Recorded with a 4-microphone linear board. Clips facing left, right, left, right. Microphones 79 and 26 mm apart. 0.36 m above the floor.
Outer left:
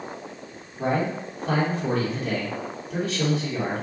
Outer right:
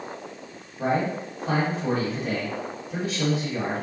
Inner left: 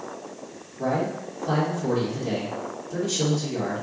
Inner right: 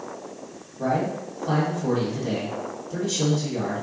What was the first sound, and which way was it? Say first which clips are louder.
A man speaking: even, inner right 1 dB; 5° right (ahead or behind).